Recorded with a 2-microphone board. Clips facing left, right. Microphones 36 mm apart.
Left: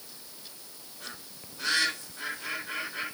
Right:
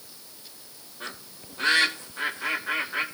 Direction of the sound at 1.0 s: 35° right (ahead or behind).